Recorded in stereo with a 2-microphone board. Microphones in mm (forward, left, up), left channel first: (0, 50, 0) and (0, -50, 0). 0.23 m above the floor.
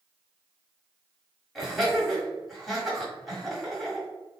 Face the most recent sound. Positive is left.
turn(degrees=0)  # may be behind; listen again after turning